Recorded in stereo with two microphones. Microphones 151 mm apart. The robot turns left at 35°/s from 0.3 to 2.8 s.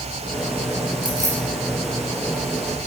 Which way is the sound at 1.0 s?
30° right (ahead or behind).